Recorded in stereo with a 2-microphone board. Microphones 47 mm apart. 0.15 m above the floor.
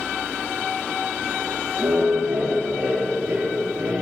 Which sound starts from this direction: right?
Laughter, at 1.8 s.